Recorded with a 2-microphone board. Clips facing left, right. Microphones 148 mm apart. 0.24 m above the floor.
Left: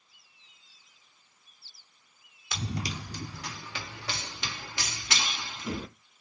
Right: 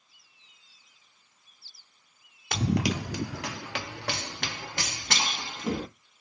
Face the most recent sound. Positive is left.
turn(degrees=-45)  # may be behind; listen again after turning